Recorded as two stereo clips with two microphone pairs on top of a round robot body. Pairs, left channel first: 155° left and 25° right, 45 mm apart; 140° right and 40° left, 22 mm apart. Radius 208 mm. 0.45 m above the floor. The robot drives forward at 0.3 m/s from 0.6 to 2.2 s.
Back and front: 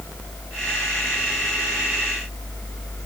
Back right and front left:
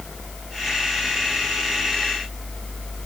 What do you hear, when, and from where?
Only background noise.